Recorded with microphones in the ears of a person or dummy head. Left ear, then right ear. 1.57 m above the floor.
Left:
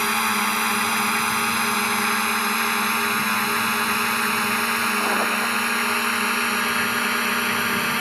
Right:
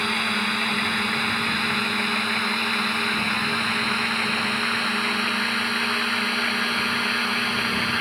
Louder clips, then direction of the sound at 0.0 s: Left 2 dB; 35° left (ahead or behind).